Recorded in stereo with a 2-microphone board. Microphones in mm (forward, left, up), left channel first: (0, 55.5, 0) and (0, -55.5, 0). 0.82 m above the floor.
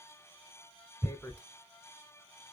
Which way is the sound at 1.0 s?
20° left (ahead or behind).